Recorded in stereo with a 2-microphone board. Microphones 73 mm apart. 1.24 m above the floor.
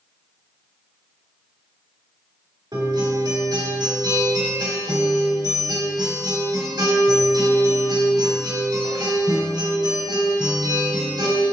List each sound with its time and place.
2.7 s a guitar: 75° right (ahead or behind), 2.5 m